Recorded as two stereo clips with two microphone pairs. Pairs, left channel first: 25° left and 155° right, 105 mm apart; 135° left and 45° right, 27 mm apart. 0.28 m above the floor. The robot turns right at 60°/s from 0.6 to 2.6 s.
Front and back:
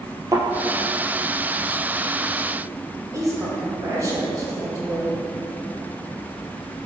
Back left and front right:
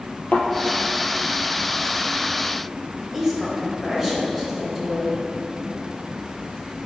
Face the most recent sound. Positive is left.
turn(degrees=-125)